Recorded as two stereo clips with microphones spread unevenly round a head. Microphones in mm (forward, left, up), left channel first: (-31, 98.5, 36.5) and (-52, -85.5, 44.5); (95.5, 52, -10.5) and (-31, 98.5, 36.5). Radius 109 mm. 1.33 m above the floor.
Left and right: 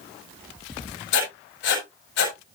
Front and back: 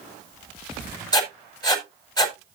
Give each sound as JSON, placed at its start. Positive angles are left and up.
{"t": 1.1, "sound": "writing", "azimuth_deg": 45, "distance_m": 5.5}